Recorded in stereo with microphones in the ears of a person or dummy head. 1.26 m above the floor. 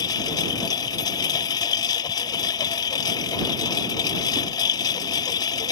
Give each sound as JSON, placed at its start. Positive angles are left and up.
{"t": 0.0, "sound": "a lawn mower", "side_deg": 25}